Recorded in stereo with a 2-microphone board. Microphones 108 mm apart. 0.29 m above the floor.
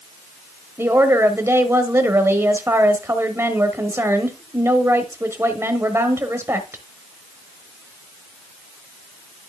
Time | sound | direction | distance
0.8 | a woman speaking | 25° right (ahead or behind) | 1.0 m